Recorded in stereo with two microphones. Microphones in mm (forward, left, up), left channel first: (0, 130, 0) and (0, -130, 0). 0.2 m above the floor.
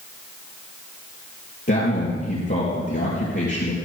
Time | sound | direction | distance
1.7 | a man speaking | 45° left (ahead or behind) | 4.5 m